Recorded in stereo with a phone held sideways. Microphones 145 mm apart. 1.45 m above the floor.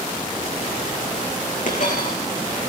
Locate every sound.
1.7 s a dropped coin: 60° left (ahead or behind), 9 m